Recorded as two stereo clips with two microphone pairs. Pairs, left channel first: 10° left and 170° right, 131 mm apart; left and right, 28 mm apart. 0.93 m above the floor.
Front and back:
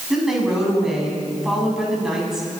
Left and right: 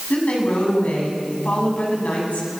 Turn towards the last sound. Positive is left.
turn(degrees=105)